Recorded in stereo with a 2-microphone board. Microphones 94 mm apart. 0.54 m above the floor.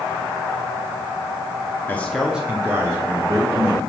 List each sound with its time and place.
1.9 s a man speaking: 20° left (ahead or behind), 0.9 m; by 3.9 s 40° right (ahead or behind), 2.5 m